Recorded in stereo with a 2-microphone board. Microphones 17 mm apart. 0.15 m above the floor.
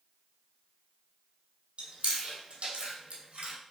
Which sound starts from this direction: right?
Chewing, at 1.8 s.